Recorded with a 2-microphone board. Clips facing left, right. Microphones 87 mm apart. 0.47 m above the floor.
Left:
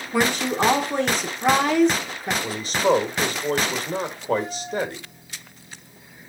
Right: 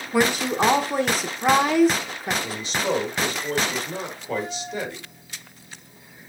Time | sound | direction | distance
0.1 | a woman speaking | 5° right (ahead or behind) | 0.8 m
2.4 | a man speaking | 45° left (ahead or behind) | 1.1 m